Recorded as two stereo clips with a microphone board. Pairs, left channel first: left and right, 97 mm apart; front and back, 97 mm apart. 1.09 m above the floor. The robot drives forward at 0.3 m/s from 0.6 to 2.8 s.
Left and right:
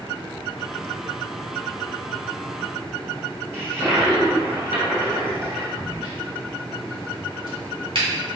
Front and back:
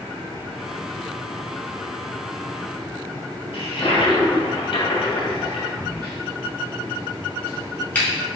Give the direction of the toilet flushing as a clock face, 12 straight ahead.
1 o'clock.